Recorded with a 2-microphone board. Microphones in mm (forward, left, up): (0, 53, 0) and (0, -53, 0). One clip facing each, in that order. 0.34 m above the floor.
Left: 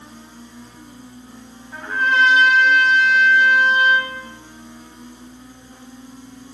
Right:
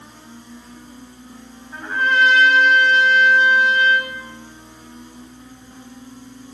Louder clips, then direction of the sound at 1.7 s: Even; 5° left (ahead or behind).